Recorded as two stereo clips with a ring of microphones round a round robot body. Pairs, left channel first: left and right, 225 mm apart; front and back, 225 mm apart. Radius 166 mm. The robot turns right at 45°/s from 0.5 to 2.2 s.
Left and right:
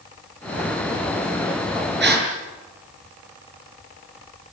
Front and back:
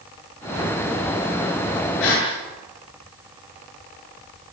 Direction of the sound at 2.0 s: 50° right.